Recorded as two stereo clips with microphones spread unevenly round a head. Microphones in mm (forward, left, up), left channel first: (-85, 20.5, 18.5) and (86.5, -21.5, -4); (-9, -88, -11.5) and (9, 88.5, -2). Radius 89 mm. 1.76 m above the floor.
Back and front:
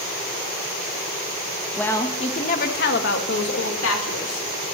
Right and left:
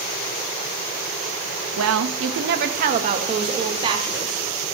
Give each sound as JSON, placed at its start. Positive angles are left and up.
{"t": 1.8, "sound": "a woman speaking", "azimuth_deg": 80, "distance_m": 0.9}